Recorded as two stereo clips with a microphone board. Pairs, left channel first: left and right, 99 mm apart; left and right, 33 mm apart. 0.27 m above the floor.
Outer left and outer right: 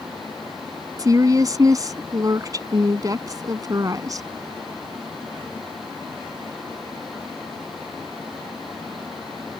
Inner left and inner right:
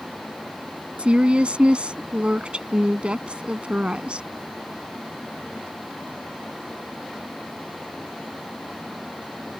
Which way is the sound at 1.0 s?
35° right (ahead or behind).